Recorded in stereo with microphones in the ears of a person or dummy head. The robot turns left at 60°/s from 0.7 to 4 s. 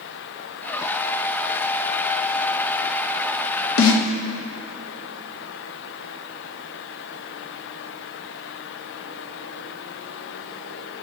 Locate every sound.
3.8 s a snare drum: 90° left, 1.6 m; by 4.1 s 75° left (ahead or behind), 1.6 m